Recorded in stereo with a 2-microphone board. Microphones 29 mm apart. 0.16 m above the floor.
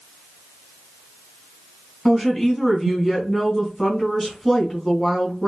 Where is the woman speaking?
5° left (ahead or behind), 1.3 m.